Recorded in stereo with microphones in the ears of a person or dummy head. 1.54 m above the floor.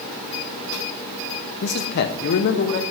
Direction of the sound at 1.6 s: 55° left (ahead or behind).